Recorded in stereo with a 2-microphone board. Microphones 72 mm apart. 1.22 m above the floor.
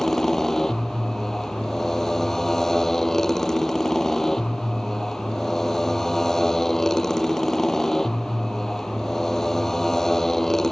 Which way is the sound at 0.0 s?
5° left (ahead or behind).